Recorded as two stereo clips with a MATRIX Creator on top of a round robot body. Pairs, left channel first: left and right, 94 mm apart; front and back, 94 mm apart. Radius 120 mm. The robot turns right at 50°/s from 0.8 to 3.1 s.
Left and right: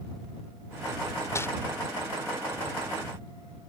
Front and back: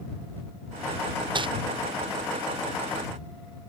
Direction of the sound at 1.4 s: 150° left.